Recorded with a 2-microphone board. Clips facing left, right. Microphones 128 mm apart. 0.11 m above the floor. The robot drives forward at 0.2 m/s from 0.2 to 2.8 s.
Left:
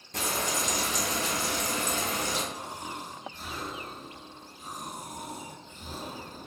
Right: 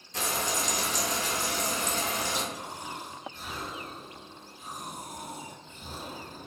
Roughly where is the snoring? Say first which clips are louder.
Left 1 dB; left.